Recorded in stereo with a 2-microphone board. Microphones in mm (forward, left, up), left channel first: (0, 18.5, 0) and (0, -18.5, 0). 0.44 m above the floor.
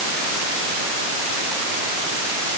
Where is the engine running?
No engine running in this recording.